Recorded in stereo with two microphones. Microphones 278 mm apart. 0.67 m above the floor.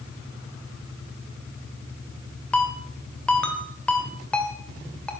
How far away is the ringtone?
About 1.7 m.